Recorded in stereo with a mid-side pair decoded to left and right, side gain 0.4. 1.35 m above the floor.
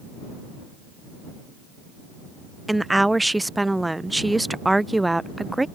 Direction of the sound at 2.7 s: 10° right.